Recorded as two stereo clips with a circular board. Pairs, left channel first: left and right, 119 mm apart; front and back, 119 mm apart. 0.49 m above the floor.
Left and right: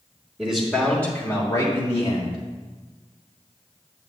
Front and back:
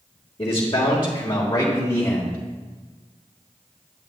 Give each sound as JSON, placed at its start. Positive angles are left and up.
{"t": 0.4, "sound": "a man speaking", "azimuth_deg": -15, "distance_m": 1.4}